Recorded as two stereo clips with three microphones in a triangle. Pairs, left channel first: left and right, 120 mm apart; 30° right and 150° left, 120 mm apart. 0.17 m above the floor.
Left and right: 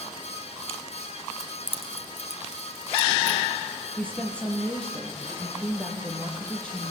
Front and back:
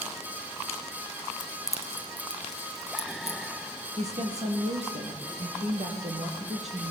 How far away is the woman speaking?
About 5 m.